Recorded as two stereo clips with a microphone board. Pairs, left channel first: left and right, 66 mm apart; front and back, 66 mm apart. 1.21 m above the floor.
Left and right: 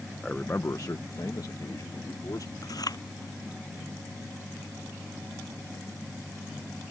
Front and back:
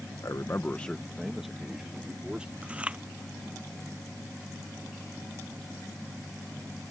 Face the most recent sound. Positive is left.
turn(degrees=105)